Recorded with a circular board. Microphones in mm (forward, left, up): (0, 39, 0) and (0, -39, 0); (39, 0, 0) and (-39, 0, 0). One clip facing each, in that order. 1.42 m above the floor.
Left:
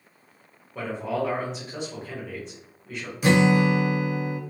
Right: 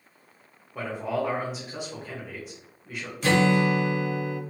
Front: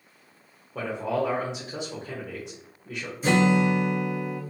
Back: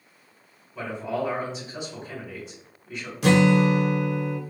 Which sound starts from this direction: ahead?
A man speaking, at 0.8 s.